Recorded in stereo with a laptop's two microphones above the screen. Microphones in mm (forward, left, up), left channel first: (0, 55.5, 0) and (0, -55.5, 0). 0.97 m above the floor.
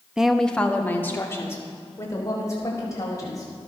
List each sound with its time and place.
0.2 s a woman speaking: 5° right (ahead or behind), 1.0 m; by 3.5 s 30° left (ahead or behind), 5.5 m